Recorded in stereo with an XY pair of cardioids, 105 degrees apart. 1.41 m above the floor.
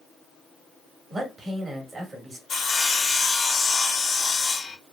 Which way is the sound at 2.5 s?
50° left.